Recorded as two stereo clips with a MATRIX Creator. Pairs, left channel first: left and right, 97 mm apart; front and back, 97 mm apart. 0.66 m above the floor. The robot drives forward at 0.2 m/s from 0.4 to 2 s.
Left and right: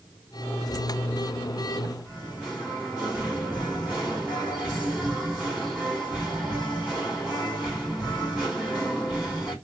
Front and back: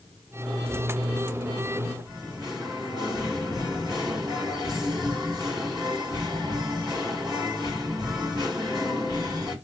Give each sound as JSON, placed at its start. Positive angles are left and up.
{"t": 2.0, "sound": "singing", "azimuth_deg": -170, "distance_m": 1.9}